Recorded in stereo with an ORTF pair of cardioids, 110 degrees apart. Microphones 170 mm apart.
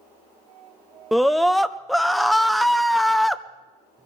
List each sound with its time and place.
1.1 s a scream: straight ahead, 0.9 m